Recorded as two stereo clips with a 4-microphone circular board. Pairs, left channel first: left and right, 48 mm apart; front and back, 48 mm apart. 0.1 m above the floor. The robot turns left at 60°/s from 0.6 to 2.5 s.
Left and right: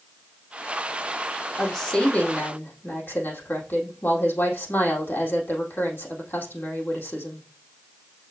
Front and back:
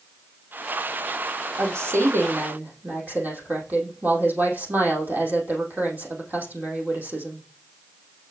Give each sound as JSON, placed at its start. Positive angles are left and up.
{"t": 1.6, "sound": "a woman speaking", "azimuth_deg": -170, "distance_m": 3.5}